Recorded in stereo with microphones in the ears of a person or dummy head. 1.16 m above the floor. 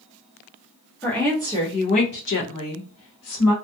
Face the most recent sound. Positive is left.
turn(degrees=70)  # may be behind; listen again after turning